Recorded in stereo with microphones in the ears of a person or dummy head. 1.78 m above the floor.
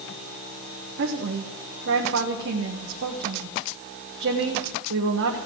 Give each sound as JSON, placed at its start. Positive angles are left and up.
{"t": 1.0, "sound": "a woman speaking", "side_deg": -65, "distance_m": 1.2}